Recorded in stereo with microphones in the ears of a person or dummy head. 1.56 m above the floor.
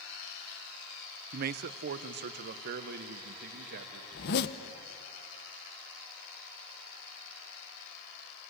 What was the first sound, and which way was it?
A man speaking, 50° right (ahead or behind).